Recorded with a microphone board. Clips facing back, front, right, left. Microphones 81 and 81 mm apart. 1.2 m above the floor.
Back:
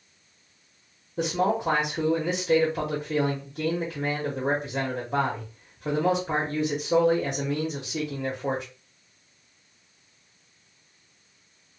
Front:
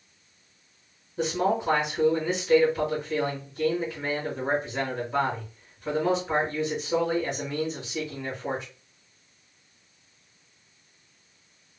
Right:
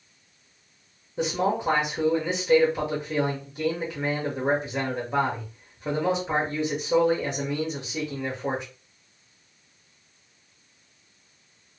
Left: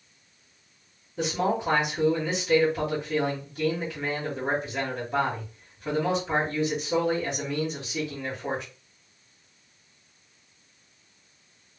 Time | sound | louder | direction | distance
1.2 | a man speaking | even, right 1 dB | 160° right | 1.0 m